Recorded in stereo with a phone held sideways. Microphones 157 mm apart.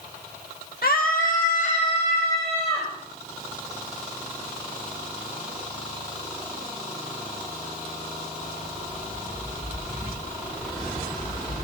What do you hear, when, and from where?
0.8 s a scream: 70° left (ahead or behind), 1.3 m; by 2.9 s 35° left (ahead or behind), 4 m